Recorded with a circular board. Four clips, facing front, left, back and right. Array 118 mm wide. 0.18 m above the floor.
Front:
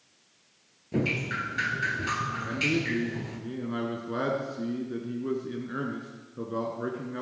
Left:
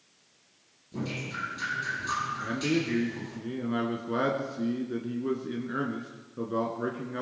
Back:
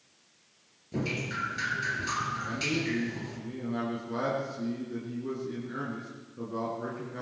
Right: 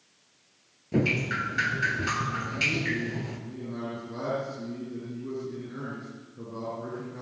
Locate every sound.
0.9 s dripping: 70° right, 2 m
2.4 s a man speaking: 65° left, 2 m